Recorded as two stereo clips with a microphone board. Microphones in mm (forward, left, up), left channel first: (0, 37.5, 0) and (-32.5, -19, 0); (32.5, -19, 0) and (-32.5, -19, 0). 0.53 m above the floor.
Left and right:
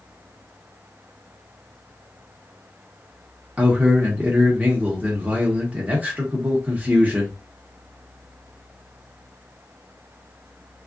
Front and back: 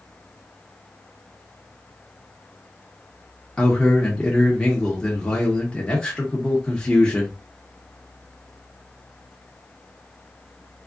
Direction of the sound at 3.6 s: 70° right.